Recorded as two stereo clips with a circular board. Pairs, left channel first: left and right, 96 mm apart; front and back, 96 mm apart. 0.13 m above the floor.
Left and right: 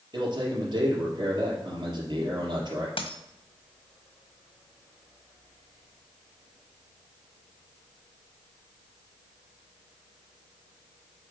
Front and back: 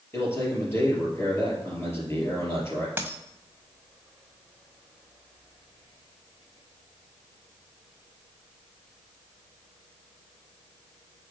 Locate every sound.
0.1 s a man speaking: 60° right, 3.5 m
3.0 s a dropped coin: 110° left, 1.4 m